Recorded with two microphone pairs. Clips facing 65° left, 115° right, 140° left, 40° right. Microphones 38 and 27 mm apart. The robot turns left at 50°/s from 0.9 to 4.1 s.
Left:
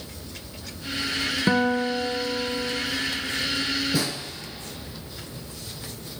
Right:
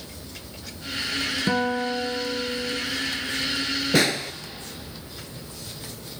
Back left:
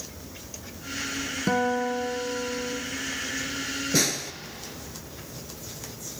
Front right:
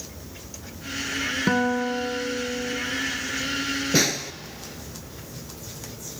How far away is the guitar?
About 1.3 m.